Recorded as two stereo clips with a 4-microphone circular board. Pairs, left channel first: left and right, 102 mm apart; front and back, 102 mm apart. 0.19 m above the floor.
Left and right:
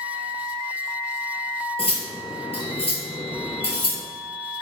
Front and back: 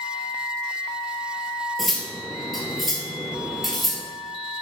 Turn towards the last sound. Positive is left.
turn(degrees=90)